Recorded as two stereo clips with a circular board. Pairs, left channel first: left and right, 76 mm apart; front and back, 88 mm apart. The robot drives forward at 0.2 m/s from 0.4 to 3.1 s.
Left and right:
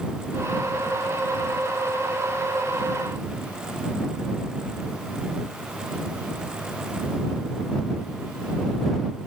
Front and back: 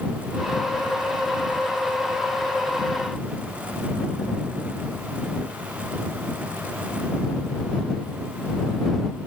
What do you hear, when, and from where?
Only background noise.